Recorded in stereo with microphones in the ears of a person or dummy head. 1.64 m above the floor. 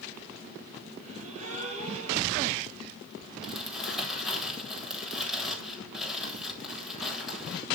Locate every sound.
1.0 s a gasp: 35° right (ahead or behind), 5 m
3.4 s crumpling: 5° left (ahead or behind), 8.5 m